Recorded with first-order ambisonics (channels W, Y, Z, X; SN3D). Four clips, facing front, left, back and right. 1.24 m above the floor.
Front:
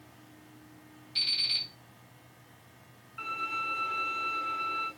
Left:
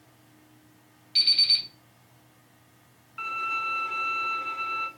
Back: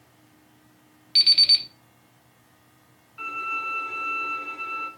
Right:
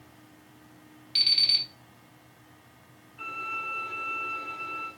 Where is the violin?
95° left, 1.6 m.